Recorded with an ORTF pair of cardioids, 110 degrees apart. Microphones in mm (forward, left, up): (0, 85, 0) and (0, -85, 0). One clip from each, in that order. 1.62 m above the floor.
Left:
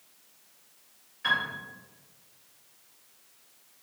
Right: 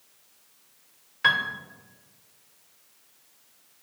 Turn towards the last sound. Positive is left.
turn(degrees=-70)